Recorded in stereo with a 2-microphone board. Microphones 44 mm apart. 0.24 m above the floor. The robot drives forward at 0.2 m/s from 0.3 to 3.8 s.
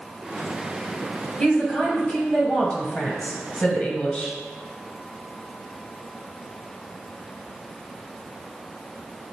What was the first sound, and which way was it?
A woman speaking, 20° left (ahead or behind).